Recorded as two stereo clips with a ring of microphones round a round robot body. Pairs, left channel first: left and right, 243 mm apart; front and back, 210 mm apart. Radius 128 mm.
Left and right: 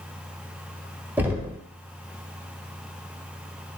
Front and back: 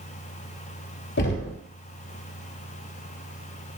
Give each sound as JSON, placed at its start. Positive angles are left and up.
{"t": 1.2, "sound": "knocking", "azimuth_deg": -10, "distance_m": 1.3}